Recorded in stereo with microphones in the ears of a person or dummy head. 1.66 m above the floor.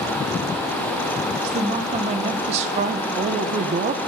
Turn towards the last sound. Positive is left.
turn(degrees=-40)  # may be behind; listen again after turning